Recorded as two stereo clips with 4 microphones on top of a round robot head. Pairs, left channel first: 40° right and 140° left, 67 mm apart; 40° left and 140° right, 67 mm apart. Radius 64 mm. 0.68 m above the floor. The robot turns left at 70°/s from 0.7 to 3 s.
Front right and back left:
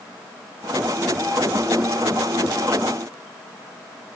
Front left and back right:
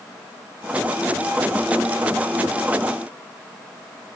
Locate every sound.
Only background noise.